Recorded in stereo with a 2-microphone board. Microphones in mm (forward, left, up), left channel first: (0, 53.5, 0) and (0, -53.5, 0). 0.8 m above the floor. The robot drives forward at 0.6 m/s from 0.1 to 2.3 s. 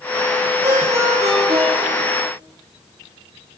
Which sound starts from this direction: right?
A ringtone, at 0.6 s.